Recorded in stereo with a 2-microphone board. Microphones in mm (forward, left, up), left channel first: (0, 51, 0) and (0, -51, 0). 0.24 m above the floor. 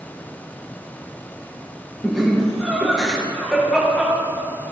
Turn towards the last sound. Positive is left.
turn(degrees=0)  # may be behind; listen again after turning